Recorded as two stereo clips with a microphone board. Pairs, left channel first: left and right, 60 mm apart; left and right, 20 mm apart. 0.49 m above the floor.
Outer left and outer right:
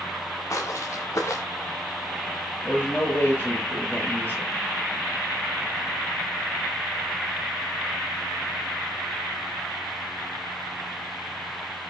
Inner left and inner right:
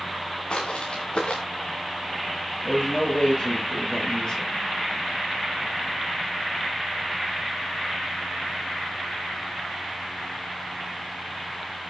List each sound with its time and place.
0.5 s footsteps: 55° left (ahead or behind), 3 m
2.6 s a man speaking: 30° left (ahead or behind), 10 m